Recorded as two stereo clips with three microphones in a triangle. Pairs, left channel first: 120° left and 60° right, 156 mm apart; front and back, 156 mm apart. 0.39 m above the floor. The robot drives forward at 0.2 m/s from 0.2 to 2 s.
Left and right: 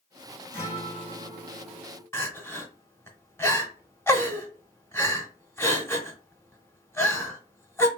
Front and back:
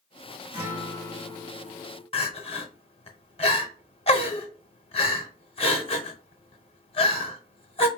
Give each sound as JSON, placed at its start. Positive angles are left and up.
{"t": 0.5, "sound": "a guitar", "azimuth_deg": 175, "distance_m": 1.4}
{"t": 2.1, "sound": "crying", "azimuth_deg": 50, "distance_m": 0.7}